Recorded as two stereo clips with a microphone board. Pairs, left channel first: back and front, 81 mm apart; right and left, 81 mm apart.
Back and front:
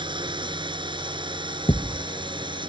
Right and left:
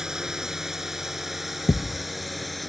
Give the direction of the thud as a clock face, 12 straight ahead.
5 o'clock.